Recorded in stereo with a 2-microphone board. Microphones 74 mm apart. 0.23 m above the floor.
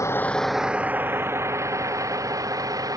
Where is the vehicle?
40° left (ahead or behind); by 3.0 s 50° right (ahead or behind).